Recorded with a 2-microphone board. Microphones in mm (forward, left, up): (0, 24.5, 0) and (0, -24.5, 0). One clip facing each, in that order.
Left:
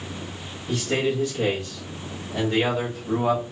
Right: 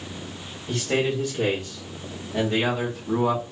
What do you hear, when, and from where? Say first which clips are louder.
0.7 s a man speaking: even; 45° right (ahead or behind), 1.5 m; by 3.4 s 15° left (ahead or behind), 1.2 m